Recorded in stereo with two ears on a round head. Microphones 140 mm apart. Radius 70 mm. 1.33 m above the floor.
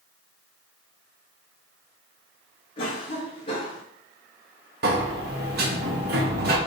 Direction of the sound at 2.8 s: 30° left (ahead or behind).